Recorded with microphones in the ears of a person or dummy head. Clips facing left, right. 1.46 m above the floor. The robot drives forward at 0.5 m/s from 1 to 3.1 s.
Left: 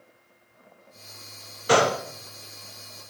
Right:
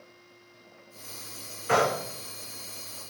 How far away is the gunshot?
About 0.6 m.